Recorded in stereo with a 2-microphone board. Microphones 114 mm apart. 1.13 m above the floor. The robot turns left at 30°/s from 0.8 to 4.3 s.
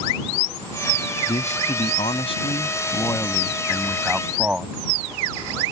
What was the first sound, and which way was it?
A man speaking, 80° left.